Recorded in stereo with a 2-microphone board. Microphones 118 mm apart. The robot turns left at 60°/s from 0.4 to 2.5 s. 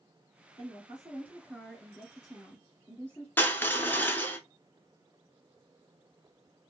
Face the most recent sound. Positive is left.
turn(degrees=15)  # may be behind; listen again after turning